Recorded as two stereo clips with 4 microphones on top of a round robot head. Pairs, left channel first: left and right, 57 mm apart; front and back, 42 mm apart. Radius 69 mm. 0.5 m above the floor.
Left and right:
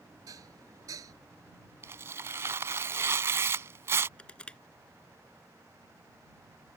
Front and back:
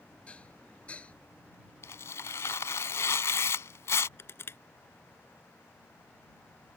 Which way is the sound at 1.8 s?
35° right.